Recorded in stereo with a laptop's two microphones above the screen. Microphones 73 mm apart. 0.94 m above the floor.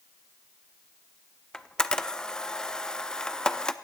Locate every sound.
1.5 s a camera shutter: 10° left (ahead or behind), 0.5 m